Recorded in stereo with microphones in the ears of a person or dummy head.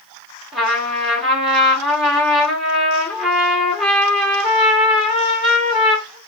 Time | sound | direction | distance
0.5 | a trumpet | centre (ahead or behind) | 1.4 m